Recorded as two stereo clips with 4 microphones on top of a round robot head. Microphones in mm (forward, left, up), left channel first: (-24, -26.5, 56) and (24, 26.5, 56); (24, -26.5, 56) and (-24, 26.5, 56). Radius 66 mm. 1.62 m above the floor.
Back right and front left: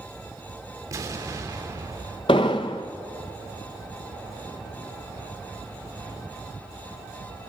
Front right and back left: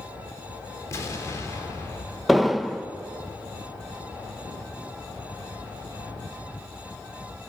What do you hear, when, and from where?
0.9 s an explosion: straight ahead, 3.5 m
2.3 s an explosion: 140° right, 0.9 m